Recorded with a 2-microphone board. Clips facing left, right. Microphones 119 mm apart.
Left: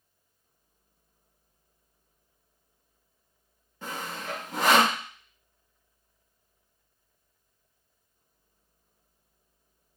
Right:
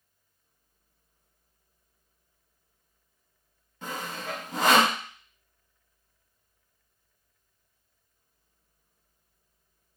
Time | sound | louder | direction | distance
3.8 | sawing | right 1 dB | 5° left (ahead or behind) | 1.9 m